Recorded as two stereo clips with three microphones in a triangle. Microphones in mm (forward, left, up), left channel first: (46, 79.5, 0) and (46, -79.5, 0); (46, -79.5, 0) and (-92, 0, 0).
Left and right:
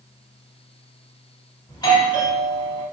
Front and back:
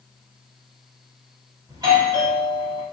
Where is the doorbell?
120° left, 1.7 m.